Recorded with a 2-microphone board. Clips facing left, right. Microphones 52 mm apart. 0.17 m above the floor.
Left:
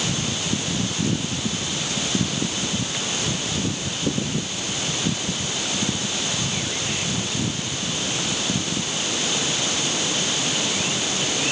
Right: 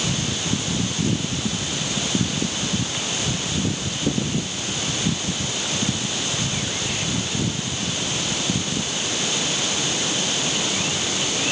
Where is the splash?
No splash in this recording.